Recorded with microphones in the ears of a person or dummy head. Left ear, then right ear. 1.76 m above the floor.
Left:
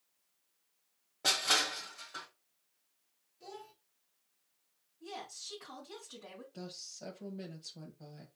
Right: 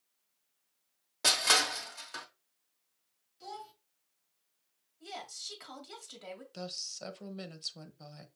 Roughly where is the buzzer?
No buzzer in this recording.